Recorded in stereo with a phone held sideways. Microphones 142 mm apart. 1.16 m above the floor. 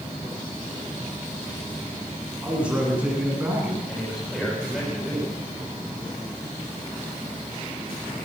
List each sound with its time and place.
2.4 s a man speaking: 10° right (ahead or behind), 9.5 m; by 3.8 s 15° right (ahead or behind), 9.5 m
3.9 s a man speaking: 5° left (ahead or behind), 5 m